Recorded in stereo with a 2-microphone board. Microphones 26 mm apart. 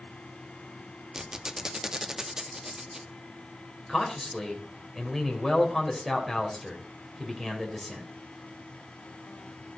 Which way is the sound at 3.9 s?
Centre (ahead or behind).